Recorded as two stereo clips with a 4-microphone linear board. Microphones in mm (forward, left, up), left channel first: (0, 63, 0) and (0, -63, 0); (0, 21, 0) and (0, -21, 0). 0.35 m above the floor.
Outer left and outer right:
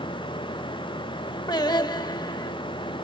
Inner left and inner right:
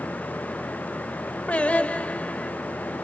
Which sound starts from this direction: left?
Singing, at 1.5 s.